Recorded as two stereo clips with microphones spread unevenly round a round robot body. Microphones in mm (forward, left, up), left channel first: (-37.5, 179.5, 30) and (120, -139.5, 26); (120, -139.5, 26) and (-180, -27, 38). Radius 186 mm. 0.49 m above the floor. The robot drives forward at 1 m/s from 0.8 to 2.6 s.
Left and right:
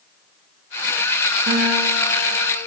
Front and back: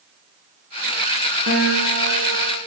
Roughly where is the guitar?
Behind right.